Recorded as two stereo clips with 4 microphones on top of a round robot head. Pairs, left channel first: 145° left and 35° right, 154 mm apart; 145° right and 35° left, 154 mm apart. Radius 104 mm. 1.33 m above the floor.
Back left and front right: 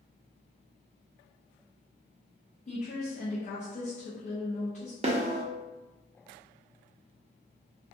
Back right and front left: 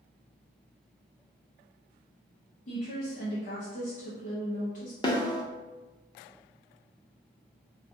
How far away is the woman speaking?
About 0.7 m.